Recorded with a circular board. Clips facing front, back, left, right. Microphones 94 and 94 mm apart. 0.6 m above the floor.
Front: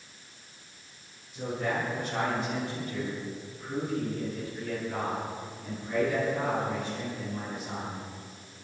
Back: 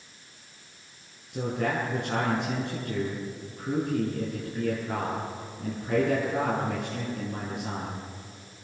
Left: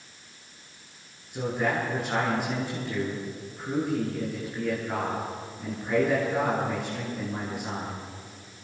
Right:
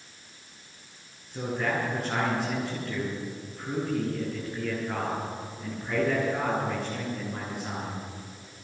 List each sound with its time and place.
1.3 s a man speaking: 175° left, 9.5 m